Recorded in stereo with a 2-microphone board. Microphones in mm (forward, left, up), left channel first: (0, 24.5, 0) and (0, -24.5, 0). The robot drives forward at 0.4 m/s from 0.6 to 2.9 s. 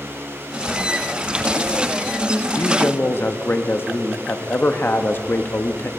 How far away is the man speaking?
About 0.6 m.